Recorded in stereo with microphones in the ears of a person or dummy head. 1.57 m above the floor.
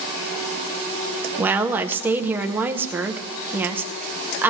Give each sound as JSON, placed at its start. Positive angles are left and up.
{"t": 1.4, "sound": "a woman speaking", "side_deg": -5, "distance_m": 0.8}